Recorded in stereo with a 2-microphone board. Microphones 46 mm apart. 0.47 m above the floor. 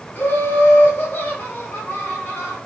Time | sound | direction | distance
0.1 | laughter | 45° left (ahead or behind) | 1.3 m